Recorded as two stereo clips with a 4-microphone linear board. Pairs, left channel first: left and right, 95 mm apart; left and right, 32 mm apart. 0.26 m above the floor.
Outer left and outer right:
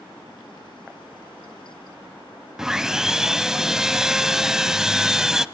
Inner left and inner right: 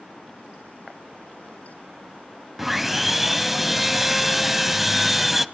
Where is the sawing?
5° right (ahead or behind), 0.6 m.